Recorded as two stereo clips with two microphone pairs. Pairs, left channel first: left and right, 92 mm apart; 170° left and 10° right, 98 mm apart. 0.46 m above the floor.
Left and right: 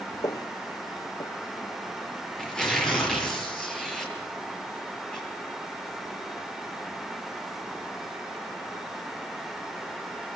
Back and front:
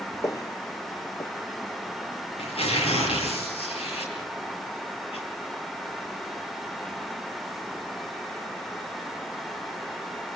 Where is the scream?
I don't hear a scream.